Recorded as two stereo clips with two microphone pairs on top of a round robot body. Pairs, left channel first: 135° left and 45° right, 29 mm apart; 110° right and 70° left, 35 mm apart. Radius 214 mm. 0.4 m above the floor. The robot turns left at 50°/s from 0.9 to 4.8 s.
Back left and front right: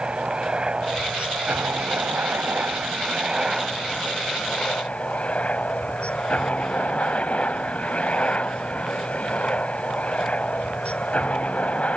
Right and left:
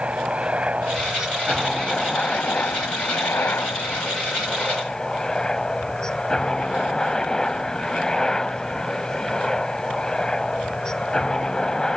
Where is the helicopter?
10° left; by 12.0 s 175° left.